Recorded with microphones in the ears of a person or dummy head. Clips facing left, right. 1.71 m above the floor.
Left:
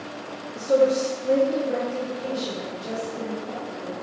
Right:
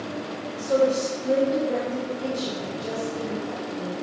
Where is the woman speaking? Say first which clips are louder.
Left 2 dB; 45° left (ahead or behind), 1.0 m; by 3.9 s 30° right (ahead or behind), 2 m.